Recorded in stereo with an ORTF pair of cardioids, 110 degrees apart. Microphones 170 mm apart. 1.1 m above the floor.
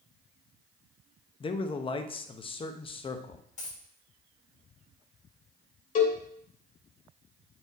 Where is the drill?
I don't hear a drill.